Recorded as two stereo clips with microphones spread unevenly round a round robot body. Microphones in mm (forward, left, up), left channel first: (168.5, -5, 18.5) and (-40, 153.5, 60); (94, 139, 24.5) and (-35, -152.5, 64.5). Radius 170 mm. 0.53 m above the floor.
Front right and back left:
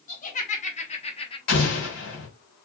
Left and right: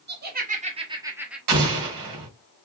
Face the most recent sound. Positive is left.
turn(degrees=-85)